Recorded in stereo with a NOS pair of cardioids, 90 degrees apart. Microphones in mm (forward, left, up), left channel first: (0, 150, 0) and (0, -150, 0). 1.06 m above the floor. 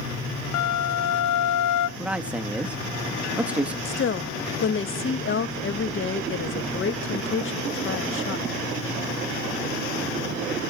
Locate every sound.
0.5 s a flute: 65° left, 0.7 m
2.0 s a man speaking: 5° right, 1.2 m
3.9 s a woman speaking: 45° left, 1.6 m